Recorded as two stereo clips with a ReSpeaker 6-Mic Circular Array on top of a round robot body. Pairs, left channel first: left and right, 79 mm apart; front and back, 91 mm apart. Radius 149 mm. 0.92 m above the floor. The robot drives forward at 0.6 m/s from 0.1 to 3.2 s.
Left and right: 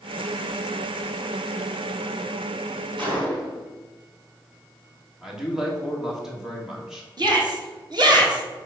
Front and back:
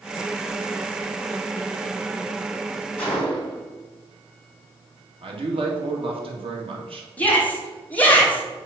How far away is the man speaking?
About 1.8 m.